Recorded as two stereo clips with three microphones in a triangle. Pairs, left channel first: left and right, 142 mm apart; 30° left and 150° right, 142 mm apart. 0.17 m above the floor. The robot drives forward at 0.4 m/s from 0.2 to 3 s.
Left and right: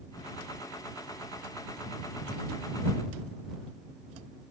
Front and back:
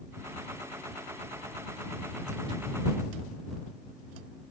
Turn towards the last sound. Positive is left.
No sound to turn to.